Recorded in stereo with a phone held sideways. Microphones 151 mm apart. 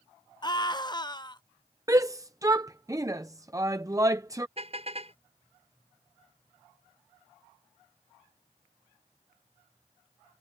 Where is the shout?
20° right (ahead or behind).